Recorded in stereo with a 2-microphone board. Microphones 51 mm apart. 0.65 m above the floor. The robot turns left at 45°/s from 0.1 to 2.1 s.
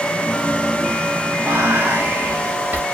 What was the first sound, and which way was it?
Whispering, 45° right (ahead or behind).